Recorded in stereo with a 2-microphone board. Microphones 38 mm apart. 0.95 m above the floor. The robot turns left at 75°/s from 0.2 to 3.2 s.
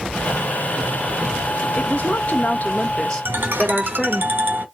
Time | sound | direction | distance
1.8 | a woman speaking | 125° left | 1.3 m
3.2 | a ringtone | 70° right (ahead or behind) | 1.8 m